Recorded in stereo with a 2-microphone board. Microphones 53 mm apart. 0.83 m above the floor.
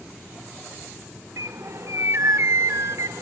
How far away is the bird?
About 0.8 m.